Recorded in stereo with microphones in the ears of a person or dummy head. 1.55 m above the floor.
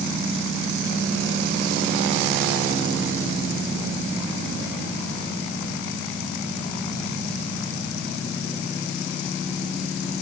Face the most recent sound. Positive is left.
No sound to turn to.